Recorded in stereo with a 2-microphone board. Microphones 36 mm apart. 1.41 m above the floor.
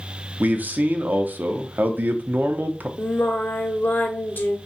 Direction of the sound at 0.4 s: 55° right (ahead or behind).